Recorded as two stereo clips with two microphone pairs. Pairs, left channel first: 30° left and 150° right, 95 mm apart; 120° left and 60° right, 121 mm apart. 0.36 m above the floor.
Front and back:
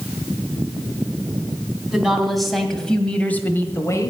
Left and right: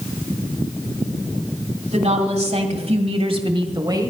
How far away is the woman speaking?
About 2.5 m.